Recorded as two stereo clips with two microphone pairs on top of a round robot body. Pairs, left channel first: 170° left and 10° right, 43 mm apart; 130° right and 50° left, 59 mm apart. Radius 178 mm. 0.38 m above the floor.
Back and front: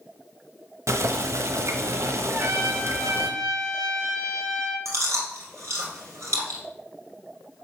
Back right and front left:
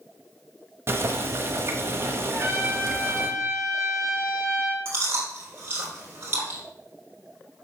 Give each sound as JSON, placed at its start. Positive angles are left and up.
{"t": 0.9, "sound": "boiling", "azimuth_deg": 0, "distance_m": 0.7}
{"t": 2.3, "sound": "a trumpet", "azimuth_deg": 5, "distance_m": 3.0}
{"t": 4.8, "sound": "chewing", "azimuth_deg": -5, "distance_m": 3.0}